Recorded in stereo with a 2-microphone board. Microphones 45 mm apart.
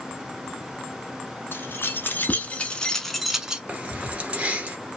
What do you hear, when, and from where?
1.5 s keys jangling: 55° left (ahead or behind), 1.5 m; by 3.6 s 20° right (ahead or behind), 0.9 m
3.7 s keys jangling: 25° right (ahead or behind), 1.4 m